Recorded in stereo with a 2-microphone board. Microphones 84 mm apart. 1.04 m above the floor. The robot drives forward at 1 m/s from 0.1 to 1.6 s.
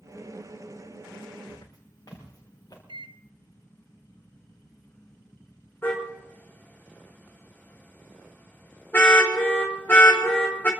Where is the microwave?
80° right, 0.5 m.